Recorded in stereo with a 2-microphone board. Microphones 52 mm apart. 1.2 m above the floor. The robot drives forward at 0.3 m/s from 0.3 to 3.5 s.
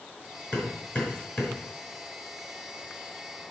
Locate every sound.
0.5 s hammering: 35° left (ahead or behind), 5 m; by 1.6 s 40° left (ahead or behind), 4.5 m